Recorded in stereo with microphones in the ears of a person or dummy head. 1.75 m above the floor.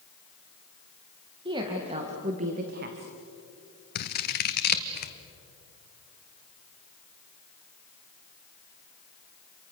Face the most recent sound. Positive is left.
turn(degrees=50)  # may be behind; listen again after turning